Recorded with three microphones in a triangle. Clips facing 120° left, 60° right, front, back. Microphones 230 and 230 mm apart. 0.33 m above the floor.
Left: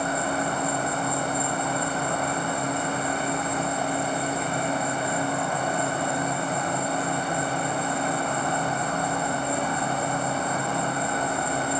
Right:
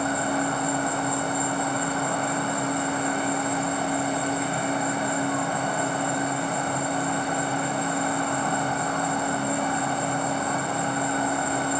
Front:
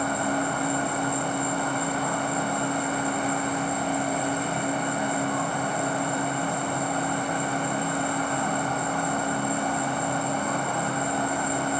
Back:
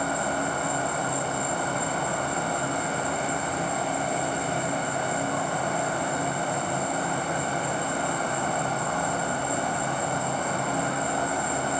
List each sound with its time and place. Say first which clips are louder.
0.0 s an insect: right 2 dB, front 2 dB; 165° left, 1.8 m